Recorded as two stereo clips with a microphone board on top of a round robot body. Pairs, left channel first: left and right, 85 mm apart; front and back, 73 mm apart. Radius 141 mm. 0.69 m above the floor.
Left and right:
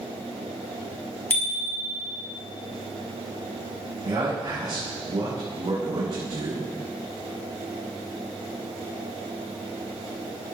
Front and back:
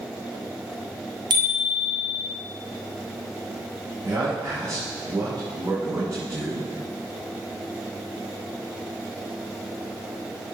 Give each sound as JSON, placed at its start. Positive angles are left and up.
{"t": 1.3, "sound": "a bicycle bell", "azimuth_deg": 160, "distance_m": 3.0}
{"t": 4.0, "sound": "a man speaking", "azimuth_deg": -140, "distance_m": 6.5}